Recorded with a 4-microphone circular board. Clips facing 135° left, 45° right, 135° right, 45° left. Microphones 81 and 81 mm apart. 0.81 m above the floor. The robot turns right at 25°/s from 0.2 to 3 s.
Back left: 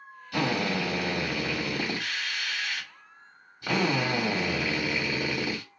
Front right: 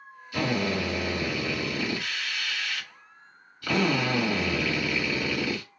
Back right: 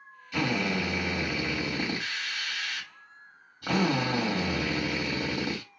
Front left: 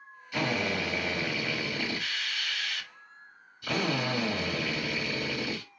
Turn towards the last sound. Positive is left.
turn(degrees=-165)